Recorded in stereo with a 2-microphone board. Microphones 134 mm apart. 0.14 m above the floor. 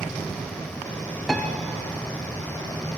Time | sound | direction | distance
1.3 | a piano | centre (ahead or behind) | 0.9 m